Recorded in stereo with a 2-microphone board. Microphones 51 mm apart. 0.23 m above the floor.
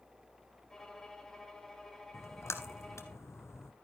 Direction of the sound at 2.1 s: 65° left (ahead or behind).